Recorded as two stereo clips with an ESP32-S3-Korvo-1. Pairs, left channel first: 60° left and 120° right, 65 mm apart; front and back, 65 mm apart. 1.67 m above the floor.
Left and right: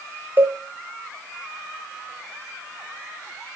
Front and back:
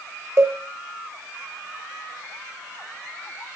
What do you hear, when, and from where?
0.4 s a cowbell: 170° right, 0.6 m